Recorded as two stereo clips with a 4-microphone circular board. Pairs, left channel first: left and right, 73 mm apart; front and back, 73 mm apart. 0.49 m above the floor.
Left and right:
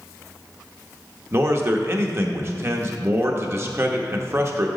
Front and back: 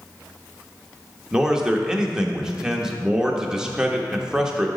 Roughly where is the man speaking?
Right.